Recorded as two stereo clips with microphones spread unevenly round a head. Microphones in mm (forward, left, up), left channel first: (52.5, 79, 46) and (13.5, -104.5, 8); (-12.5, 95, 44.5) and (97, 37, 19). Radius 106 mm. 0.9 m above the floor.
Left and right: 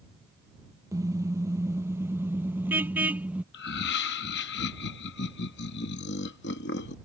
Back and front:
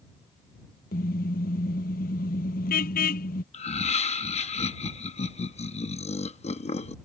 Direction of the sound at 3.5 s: 115° left.